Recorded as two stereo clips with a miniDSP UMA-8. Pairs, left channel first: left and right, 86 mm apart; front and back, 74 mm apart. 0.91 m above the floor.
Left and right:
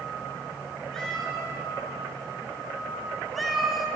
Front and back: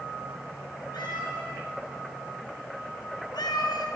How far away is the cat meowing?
About 6 m.